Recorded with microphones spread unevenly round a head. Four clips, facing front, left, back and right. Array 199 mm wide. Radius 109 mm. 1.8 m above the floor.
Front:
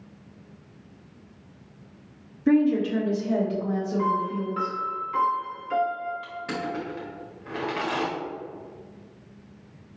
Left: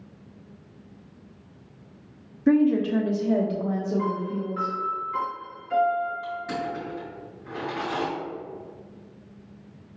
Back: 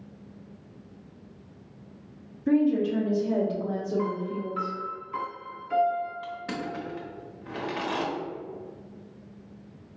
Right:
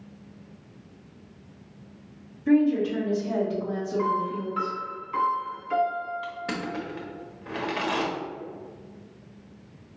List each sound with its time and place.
2.5 s a woman speaking: 45° left, 0.8 m; by 4.8 s 130° left, 1.5 m
4.0 s a piano: 95° right, 1.6 m
6.2 s crushing: 100° right, 1.2 m